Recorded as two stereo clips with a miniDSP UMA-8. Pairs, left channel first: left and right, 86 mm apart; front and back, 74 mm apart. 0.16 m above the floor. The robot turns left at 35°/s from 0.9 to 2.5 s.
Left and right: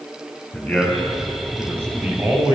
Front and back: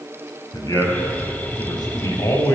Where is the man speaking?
10° left, 3.5 m; by 2.5 s 50° right, 3.5 m.